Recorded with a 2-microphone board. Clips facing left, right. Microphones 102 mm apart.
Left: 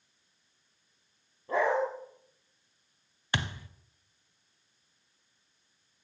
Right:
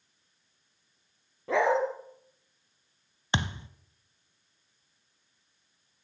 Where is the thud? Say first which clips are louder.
Right 3 dB; 25° right (ahead or behind), 0.8 m.